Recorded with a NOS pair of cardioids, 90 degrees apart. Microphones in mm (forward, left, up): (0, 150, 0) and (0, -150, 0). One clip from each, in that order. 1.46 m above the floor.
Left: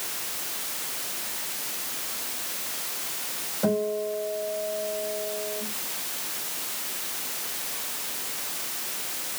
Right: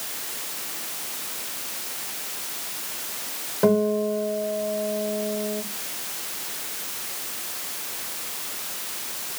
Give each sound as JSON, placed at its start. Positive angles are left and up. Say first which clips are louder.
{"t": 3.6, "sound": "a guitar", "louder": "right 6 dB", "azimuth_deg": -70, "distance_m": 7.0}